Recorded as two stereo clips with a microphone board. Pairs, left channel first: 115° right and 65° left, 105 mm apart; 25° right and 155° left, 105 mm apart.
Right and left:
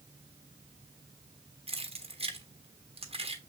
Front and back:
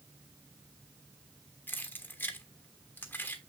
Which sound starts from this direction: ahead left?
Keys jangling, at 1.7 s.